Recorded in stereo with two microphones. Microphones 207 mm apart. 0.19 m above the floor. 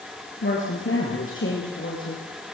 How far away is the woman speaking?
About 4.5 m.